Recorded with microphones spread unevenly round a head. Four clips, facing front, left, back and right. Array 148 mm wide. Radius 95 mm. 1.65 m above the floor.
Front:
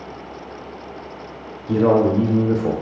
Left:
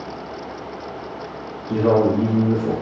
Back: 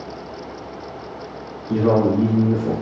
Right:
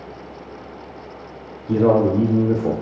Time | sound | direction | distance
1.7 | a man speaking | 55° right | 0.6 m